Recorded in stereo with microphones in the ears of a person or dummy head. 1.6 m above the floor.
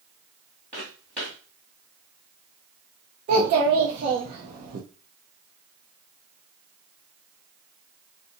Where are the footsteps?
5° right (ahead or behind), 1.7 m.